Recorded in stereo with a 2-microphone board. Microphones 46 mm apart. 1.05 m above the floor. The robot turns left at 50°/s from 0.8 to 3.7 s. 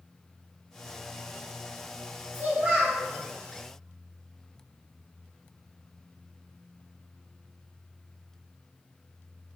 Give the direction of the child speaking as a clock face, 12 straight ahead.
4 o'clock.